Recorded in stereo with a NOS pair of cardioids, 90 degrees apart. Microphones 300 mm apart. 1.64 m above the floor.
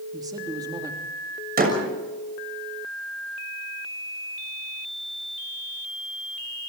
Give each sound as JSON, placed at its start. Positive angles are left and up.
{"t": 0.1, "sound": "a man speaking", "azimuth_deg": -10, "distance_m": 3.0}
{"t": 1.6, "sound": "a door slam", "azimuth_deg": -30, "distance_m": 6.5}